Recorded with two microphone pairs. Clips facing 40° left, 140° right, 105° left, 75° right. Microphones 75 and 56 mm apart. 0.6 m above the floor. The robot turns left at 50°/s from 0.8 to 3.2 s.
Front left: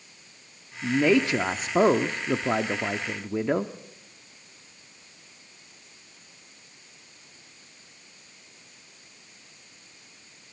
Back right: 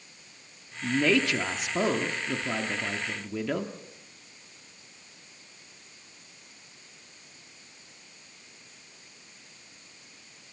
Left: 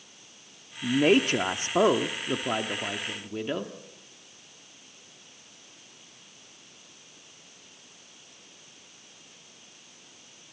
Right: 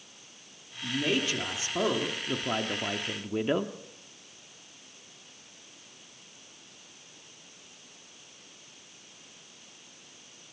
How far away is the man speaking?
About 1.1 m.